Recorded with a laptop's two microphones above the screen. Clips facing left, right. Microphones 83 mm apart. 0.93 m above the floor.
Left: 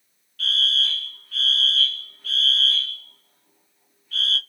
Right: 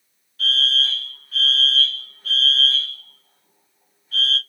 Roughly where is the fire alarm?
Right.